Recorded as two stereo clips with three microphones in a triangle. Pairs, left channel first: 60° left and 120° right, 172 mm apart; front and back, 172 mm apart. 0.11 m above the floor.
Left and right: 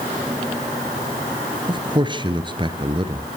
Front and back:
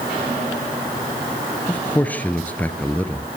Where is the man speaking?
75° right, 1.9 m.